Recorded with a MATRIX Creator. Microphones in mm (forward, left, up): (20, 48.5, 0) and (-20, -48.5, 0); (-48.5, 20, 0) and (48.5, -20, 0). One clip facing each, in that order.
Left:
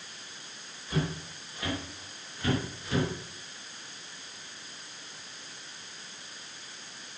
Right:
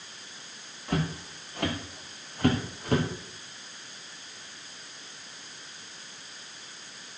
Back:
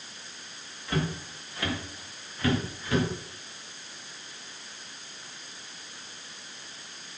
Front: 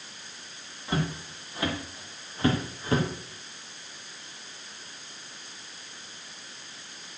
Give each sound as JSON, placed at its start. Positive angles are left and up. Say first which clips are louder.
{"t": 0.9, "sound": "footsteps", "louder": "right 2 dB, even", "azimuth_deg": -90, "distance_m": 5.0}